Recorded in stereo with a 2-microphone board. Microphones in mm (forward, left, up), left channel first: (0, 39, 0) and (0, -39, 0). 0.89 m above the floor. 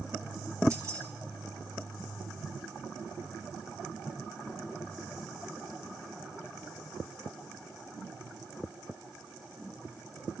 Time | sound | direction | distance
0.7 | keys jangling | 45° right (ahead or behind) | 3.5 m